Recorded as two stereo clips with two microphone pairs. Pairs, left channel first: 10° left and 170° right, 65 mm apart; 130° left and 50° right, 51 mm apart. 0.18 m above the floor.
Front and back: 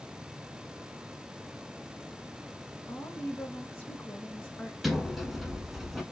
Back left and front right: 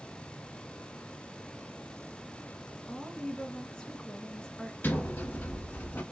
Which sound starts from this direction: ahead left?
A woman speaking, at 2.9 s.